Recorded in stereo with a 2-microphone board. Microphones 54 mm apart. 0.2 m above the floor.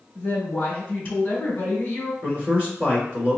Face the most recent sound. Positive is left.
turn(degrees=-25)  # may be behind; listen again after turning